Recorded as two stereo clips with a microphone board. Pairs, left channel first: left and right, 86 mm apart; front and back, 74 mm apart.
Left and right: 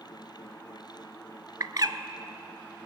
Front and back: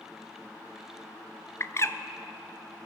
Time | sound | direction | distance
1.6 | a bird | 50° right | 0.6 m